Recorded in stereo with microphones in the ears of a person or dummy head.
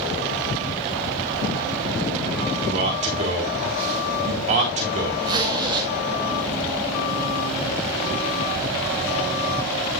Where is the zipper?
20° right (ahead or behind), 2 m.